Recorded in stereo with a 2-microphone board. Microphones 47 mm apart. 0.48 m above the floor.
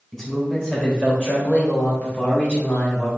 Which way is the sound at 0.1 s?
10° left (ahead or behind).